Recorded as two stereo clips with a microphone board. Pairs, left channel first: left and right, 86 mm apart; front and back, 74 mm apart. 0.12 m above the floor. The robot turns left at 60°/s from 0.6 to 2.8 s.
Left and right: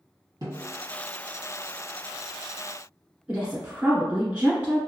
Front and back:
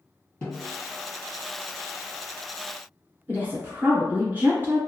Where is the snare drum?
70° right, 2.0 m; by 0.8 s 85° right, 2.0 m.